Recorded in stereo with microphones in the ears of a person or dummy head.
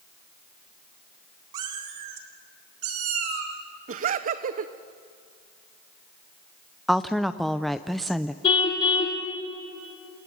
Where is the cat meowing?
25° right (ahead or behind), 1.4 m; by 3.6 s 55° right (ahead or behind), 3 m.